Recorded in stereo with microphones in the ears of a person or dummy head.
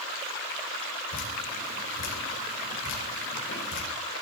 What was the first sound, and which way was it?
Dripping, 75° left (ahead or behind).